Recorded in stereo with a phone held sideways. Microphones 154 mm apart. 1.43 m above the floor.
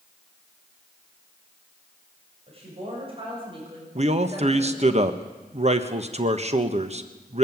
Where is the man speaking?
45° right (ahead or behind), 1.3 m.